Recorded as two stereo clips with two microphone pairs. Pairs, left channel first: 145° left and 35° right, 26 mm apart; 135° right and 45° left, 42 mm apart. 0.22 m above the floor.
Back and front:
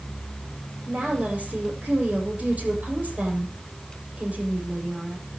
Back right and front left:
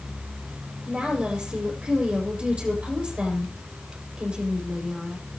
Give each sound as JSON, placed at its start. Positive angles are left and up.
{"t": 0.9, "sound": "a woman speaking", "azimuth_deg": -15, "distance_m": 7.5}